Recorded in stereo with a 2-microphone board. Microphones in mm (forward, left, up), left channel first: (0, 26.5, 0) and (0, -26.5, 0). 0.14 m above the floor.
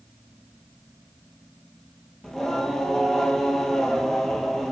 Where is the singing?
5° left (ahead or behind), 1.4 m.